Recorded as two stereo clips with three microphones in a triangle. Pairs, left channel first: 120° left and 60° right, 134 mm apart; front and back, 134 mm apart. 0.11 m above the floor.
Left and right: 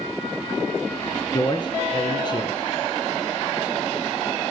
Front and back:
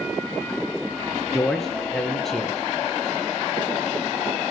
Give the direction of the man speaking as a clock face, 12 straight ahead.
9 o'clock.